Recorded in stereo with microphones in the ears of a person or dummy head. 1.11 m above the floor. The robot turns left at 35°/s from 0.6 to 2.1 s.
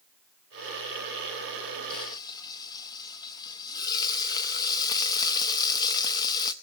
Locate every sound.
1.9 s frying: 30° left (ahead or behind), 0.7 m; by 6.5 s 25° left (ahead or behind), 0.7 m